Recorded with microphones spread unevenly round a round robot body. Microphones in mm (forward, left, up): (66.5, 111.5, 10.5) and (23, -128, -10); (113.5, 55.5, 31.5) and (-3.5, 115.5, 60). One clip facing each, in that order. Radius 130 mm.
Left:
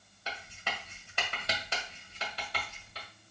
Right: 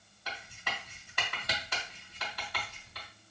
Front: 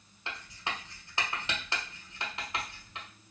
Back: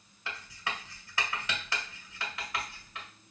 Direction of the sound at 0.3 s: 20° left.